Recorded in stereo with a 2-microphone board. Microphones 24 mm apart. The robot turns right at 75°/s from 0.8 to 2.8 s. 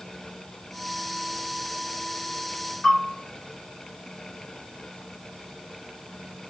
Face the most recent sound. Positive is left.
turn(degrees=55)  # may be behind; listen again after turning